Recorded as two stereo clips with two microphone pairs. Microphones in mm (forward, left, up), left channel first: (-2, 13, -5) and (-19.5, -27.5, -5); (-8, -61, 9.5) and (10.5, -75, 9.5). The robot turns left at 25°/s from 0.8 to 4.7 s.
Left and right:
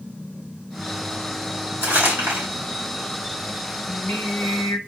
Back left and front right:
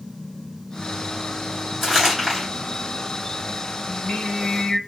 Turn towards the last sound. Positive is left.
turn(degrees=85)